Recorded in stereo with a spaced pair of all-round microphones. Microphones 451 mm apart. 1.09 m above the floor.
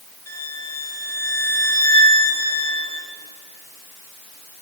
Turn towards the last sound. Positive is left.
turn(degrees=75)  # may be behind; listen again after turning